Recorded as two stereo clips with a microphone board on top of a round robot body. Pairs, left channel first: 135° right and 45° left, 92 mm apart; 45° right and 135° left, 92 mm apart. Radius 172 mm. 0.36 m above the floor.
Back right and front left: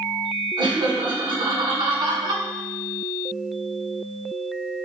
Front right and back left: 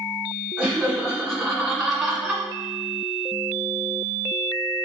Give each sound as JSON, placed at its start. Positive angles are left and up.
{"t": 0.6, "sound": "laughter", "azimuth_deg": 45, "distance_m": 2.5}